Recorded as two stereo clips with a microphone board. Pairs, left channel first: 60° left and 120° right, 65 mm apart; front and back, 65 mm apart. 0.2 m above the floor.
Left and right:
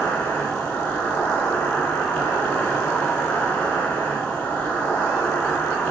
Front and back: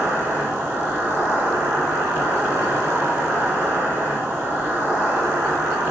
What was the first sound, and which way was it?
An insect, 125° left.